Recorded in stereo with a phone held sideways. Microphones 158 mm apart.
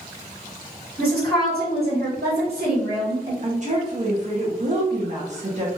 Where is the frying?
I don't hear frying.